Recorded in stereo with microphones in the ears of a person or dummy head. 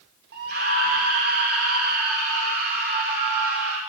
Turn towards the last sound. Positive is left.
turn(degrees=-55)  # may be behind; listen again after turning